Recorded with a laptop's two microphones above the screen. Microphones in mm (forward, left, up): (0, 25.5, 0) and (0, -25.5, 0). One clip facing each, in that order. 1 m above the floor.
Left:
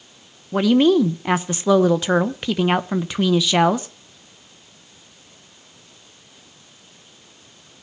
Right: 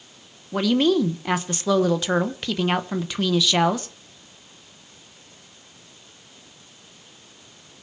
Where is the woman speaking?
15° left (ahead or behind), 0.7 m.